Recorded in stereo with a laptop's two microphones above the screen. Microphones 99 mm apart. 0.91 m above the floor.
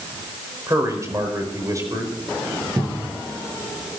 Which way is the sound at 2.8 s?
30° right (ahead or behind).